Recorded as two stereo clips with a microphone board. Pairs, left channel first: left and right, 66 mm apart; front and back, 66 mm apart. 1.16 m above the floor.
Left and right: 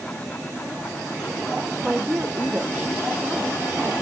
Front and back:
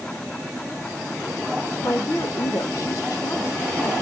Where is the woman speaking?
20° right, 0.6 m.